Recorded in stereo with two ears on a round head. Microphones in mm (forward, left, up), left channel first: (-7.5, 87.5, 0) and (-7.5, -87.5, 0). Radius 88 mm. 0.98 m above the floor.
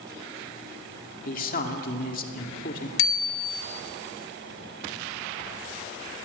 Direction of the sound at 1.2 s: 45° left (ahead or behind).